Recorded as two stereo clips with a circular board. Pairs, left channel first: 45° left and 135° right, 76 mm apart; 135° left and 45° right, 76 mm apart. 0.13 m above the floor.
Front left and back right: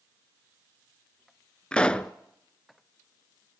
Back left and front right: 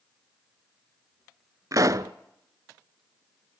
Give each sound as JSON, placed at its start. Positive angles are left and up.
{"t": 1.7, "sound": "a pop", "azimuth_deg": -25, "distance_m": 0.5}